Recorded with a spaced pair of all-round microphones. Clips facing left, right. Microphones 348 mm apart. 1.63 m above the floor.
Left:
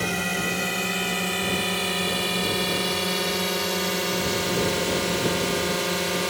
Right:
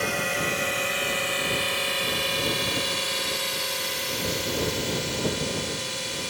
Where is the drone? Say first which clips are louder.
Left 1 dB; 50° left (ahead or behind); by 6.3 s 90° left.